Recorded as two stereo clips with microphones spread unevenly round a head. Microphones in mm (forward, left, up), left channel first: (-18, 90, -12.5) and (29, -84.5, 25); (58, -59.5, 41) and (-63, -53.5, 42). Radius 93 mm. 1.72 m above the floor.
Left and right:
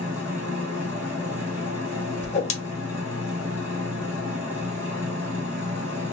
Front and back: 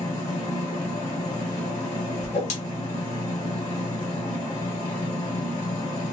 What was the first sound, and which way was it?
A machine running, 35° right.